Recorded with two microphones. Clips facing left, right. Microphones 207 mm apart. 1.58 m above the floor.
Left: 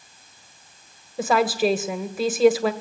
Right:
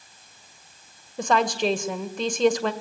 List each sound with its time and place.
1.2 s a woman speaking: 5° left (ahead or behind), 1.7 m